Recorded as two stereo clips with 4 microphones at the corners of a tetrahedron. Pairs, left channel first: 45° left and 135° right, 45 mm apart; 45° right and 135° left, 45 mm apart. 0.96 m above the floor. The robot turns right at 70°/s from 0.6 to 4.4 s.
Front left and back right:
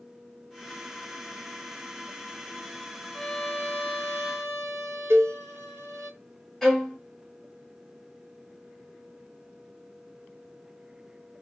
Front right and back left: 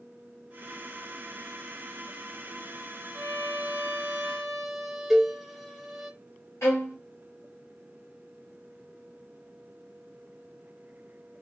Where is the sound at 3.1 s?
140° left, 0.9 m; by 6.1 s 135° right, 0.9 m.